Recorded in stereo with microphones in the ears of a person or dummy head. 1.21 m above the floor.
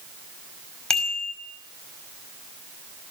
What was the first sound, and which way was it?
A bicycle bell, 5° left (ahead or behind).